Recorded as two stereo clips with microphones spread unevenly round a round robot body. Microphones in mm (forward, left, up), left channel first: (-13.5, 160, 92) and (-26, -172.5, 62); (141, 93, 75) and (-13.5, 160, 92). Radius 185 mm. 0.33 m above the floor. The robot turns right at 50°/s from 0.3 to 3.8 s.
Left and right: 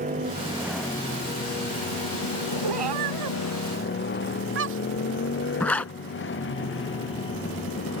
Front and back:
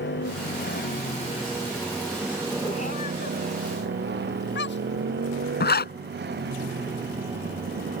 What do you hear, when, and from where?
0.0 s a motorcycle: 25° right; by 8.0 s 140° left
2.6 s a cat meowing: 95° right; by 5.0 s 35° right
5.6 s a zipper: straight ahead